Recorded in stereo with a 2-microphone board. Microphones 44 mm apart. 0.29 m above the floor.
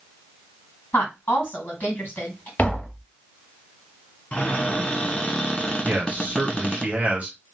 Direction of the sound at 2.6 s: 35° left (ahead or behind).